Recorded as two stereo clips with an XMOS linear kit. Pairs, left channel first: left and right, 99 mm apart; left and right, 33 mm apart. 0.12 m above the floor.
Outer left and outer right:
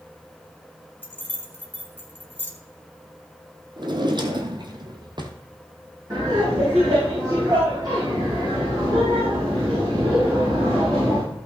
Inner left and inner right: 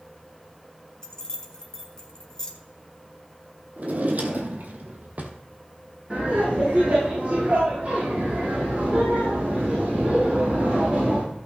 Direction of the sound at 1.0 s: 20° left (ahead or behind).